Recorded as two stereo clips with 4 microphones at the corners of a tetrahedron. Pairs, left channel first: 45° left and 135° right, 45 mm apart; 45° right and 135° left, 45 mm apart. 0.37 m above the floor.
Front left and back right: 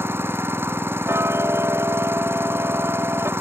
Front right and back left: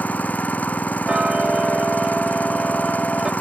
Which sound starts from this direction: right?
An engine running, at 0.0 s.